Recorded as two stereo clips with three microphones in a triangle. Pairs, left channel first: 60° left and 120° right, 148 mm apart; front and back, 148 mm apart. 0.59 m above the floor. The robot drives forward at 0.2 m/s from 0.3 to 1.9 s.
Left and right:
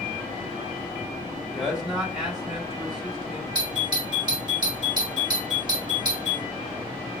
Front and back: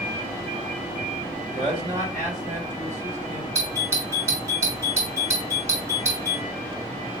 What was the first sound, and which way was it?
A man speaking, 155° left.